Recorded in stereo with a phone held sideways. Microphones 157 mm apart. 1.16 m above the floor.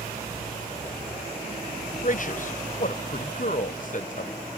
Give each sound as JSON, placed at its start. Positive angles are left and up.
{"t": 2.0, "sound": "a man speaking", "side_deg": 55, "distance_m": 0.6}